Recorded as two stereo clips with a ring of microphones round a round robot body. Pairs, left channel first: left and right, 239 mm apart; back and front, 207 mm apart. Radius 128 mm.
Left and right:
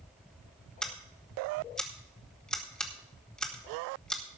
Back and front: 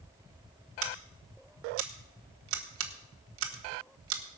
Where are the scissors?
5° left, 1.4 m.